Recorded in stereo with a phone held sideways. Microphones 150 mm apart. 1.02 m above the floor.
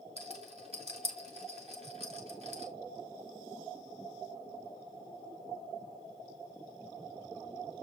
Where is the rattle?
45° right (ahead or behind), 2.5 m.